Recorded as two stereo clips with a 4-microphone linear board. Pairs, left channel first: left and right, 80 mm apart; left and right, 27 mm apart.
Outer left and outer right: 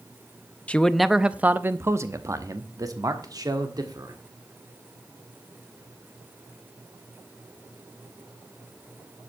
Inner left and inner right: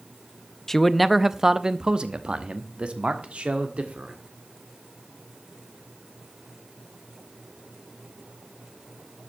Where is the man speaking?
15° left (ahead or behind), 0.5 m; by 4.2 s 55° right (ahead or behind), 1.8 m.